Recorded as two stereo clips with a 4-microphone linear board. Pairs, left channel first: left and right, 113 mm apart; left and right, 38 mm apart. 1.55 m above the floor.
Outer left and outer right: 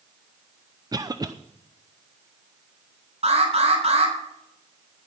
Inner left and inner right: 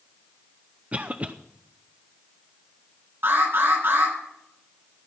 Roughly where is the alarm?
Right.